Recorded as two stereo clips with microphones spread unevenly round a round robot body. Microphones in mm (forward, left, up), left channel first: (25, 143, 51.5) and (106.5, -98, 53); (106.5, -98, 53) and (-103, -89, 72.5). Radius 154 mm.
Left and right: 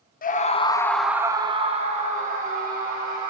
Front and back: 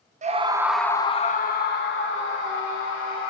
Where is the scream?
140° left, 0.6 m; by 3.3 s 15° right, 1.7 m.